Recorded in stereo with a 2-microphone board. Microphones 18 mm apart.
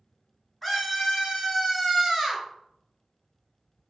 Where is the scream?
5° right (ahead or behind), 1.8 m; by 2.5 s 25° right (ahead or behind), 3 m.